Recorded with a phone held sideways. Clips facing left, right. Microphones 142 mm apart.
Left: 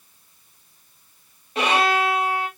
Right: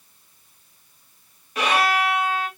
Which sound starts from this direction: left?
A violin, at 1.6 s.